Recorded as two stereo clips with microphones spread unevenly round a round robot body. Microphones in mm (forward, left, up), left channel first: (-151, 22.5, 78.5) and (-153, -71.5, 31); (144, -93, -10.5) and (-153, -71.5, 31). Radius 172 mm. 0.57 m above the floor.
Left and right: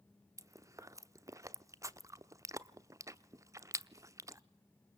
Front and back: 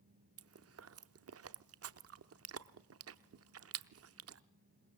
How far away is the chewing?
About 0.8 m.